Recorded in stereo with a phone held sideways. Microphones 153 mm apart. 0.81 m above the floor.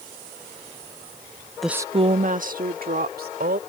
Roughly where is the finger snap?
I don't hear a finger snap.